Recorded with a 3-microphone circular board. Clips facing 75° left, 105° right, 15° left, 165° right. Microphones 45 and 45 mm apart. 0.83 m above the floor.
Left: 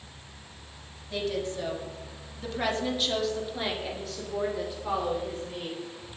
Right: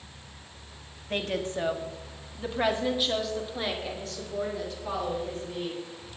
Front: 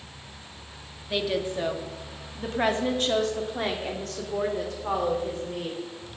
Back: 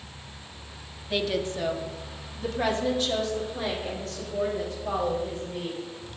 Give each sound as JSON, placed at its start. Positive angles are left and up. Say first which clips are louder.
{"t": 1.1, "sound": "a woman speaking", "louder": "right 1 dB, even", "azimuth_deg": -70, "distance_m": 1.8}